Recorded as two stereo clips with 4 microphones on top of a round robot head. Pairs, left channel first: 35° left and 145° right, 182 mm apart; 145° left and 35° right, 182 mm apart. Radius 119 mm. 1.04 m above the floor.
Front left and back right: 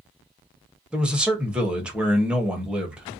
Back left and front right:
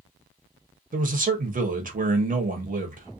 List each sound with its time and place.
0.9 s a man speaking: 65° right, 0.9 m